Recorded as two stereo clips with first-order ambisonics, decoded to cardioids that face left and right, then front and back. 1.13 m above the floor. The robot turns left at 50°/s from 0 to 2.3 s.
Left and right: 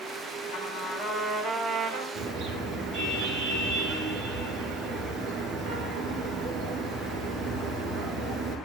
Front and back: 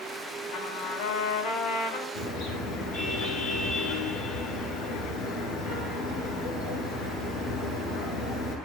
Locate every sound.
0.5 s a trumpet: 45° left, 6.5 m; by 2.0 s 30° right, 6.5 m
2.1 s a car horn: 20° right, 10 m; by 8.6 s 25° right, 10 m